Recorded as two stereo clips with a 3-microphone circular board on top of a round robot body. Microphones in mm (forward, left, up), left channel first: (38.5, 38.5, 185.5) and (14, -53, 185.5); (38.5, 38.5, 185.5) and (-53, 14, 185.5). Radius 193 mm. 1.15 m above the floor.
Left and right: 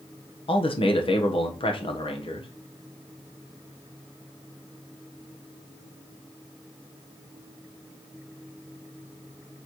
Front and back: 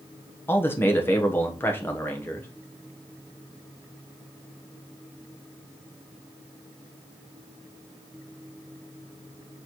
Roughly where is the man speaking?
Left.